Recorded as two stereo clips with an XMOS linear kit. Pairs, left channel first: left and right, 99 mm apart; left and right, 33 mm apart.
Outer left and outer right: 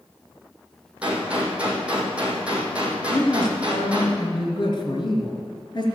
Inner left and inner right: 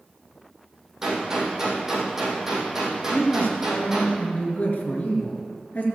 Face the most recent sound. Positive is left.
turn(degrees=50)  # may be behind; listen again after turning